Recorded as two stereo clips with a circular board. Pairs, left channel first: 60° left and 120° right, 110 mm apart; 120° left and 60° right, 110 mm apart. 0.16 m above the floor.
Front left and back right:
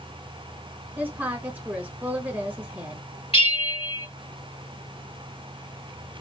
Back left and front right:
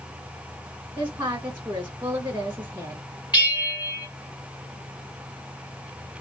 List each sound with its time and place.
1.0 s a woman speaking: 85° right, 1.6 m
3.3 s a bell: 70° left, 3.5 m